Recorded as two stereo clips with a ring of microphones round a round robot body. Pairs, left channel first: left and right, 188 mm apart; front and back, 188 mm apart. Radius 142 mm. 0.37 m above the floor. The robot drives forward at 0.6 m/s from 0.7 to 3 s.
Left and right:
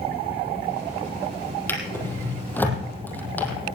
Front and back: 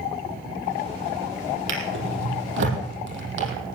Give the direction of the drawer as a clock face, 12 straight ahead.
6 o'clock.